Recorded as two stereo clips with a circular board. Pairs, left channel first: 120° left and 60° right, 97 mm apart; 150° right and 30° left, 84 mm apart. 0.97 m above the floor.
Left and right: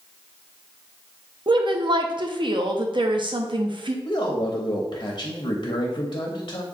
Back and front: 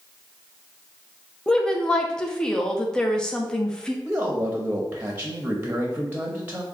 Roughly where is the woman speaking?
Right.